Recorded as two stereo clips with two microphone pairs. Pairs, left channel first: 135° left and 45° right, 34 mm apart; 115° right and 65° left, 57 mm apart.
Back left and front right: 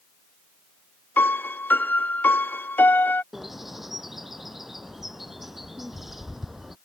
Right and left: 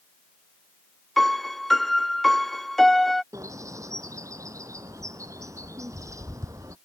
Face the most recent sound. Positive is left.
turn(degrees=40)